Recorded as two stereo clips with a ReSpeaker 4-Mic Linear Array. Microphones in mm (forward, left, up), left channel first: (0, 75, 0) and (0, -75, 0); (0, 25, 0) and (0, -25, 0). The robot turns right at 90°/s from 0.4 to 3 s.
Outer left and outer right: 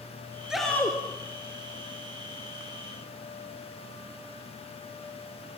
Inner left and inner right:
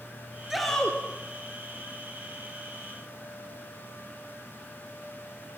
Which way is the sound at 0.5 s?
5° right.